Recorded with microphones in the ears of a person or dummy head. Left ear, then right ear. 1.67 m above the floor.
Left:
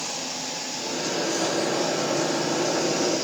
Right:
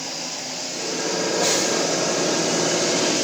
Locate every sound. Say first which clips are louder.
0.8 s a microwave: right 3 dB; 70° right (ahead or behind), 4.5 m